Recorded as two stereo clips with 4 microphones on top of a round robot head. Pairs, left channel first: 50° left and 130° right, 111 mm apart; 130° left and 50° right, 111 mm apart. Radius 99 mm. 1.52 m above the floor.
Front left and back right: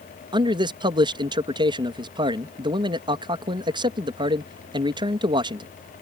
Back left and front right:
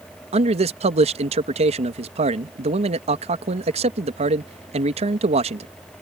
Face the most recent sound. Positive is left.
turn(degrees=-80)